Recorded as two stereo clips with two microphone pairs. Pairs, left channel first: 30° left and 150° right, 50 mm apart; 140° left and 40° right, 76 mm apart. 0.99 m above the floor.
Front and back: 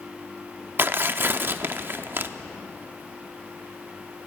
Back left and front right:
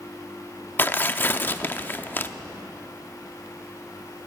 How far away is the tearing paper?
About 0.6 m.